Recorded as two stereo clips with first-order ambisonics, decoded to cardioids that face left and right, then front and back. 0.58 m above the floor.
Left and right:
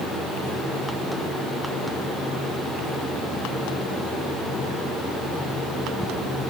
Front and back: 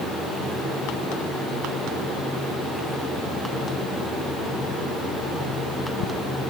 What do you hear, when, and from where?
Only background noise.